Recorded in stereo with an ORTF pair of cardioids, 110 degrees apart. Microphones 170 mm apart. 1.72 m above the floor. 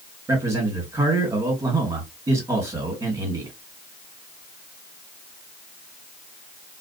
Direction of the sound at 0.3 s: 20° right.